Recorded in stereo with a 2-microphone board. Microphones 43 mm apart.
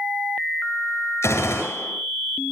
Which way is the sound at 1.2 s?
85° left.